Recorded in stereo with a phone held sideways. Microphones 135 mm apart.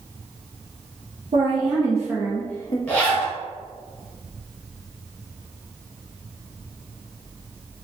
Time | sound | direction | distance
1.3 | a woman speaking | 50° right (ahead or behind) | 0.8 m
2.9 | a zipper | 10° left (ahead or behind) | 1.0 m